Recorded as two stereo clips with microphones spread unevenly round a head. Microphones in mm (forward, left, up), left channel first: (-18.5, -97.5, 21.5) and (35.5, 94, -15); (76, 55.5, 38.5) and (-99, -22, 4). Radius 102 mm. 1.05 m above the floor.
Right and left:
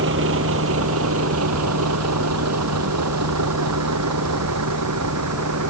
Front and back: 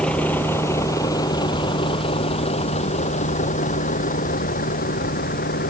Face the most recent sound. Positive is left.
turn(degrees=65)